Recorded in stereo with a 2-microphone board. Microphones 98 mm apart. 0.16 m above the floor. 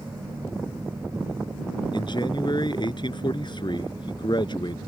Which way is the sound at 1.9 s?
55° left (ahead or behind).